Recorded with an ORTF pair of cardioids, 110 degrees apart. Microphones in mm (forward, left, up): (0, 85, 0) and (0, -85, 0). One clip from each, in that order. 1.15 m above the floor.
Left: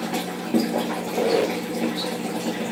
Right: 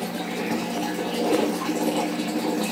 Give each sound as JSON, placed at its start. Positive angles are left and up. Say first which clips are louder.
{"t": 0.9, "sound": "a squeak", "louder": "left 1 dB", "azimuth_deg": 35, "distance_m": 1.3}